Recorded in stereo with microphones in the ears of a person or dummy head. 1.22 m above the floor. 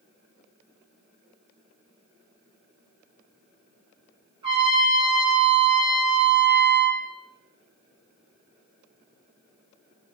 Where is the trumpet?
30° right (ahead or behind), 3 m.